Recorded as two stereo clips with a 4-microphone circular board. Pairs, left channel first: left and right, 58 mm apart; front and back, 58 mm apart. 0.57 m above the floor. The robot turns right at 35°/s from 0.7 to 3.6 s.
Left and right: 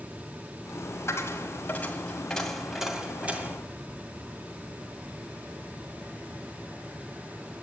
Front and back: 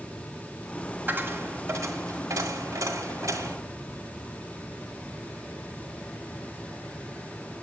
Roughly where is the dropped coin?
Behind left.